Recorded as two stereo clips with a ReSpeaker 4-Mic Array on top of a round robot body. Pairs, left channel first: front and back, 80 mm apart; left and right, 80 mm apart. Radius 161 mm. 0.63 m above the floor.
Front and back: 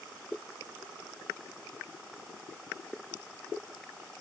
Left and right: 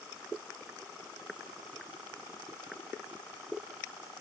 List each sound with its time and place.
Only background noise.